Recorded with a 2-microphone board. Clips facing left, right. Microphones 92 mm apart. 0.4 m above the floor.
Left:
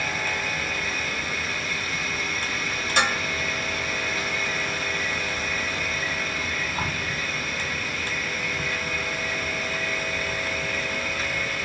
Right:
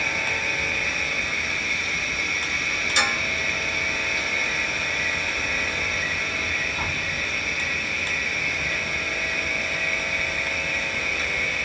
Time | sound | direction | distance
0.0 | an insect | 45° left (ahead or behind) | 1.3 m
3.0 | dishes clattering | 40° left (ahead or behind) | 1.0 m